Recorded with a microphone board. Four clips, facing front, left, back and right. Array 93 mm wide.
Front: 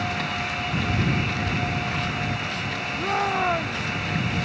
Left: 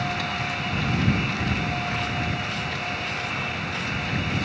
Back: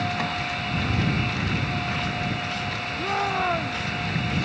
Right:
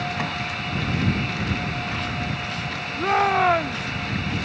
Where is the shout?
90° right.